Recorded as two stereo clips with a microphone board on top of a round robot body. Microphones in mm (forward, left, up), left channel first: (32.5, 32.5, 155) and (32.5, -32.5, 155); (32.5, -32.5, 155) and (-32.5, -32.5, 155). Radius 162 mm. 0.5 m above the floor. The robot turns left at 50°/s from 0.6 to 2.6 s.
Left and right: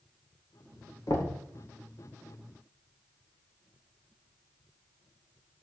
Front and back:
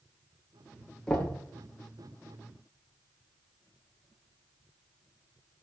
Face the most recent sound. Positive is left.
turn(degrees=5)